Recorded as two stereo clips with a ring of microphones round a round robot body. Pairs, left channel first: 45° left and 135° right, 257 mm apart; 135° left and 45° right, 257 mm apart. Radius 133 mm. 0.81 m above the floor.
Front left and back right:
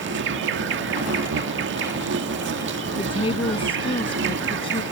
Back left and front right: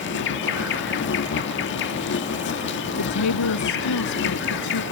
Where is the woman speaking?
115° left.